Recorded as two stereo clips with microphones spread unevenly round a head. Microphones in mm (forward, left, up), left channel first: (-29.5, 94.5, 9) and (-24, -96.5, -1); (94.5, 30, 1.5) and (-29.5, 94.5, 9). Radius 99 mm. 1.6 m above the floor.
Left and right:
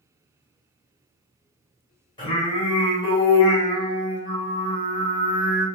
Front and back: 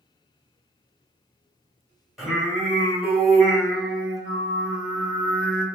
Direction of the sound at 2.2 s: 75° left.